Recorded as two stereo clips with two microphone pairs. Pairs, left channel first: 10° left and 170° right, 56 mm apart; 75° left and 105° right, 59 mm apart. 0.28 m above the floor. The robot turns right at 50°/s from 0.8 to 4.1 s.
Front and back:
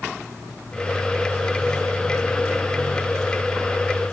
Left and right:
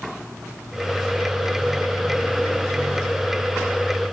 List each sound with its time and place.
Only background noise.